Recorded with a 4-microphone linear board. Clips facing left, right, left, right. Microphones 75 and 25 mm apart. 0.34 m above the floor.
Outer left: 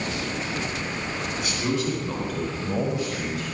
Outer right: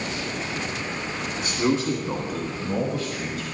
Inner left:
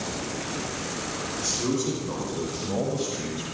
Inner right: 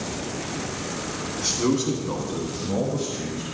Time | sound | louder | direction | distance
1.4 | a man speaking | outer right 4 dB, inner right 4 dB | 35° right (ahead or behind) | 2.5 m